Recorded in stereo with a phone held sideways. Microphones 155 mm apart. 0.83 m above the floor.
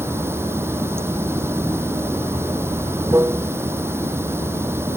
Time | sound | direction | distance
0.0 | running water | 15° right (ahead or behind) | ?